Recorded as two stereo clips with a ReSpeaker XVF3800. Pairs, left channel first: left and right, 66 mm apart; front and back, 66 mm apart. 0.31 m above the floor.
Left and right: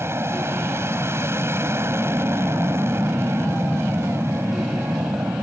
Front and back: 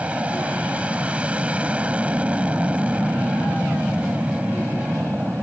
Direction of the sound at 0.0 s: 115° right.